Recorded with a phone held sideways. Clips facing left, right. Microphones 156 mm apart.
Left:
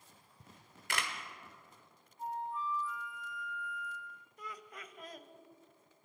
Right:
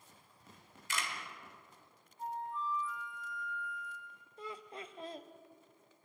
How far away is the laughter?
About 0.9 m.